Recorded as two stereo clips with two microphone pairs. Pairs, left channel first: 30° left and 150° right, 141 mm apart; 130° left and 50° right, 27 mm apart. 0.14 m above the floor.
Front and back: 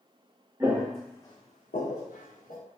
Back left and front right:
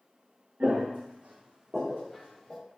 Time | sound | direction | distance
0.6 | footsteps | 70° right | 0.9 m